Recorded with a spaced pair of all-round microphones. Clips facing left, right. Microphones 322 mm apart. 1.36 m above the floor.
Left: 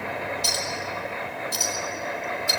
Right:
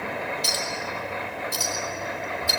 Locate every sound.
0.4 s a clink: 65° right (ahead or behind), 5.5 m